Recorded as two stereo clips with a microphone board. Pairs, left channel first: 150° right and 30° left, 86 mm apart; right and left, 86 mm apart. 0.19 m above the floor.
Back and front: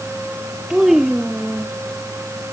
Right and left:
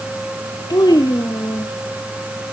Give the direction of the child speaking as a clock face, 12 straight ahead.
2 o'clock.